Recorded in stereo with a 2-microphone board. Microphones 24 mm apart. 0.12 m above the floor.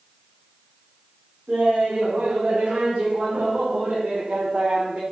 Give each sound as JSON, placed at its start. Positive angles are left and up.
{"t": 1.5, "sound": "laughter", "side_deg": -80, "distance_m": 8.5}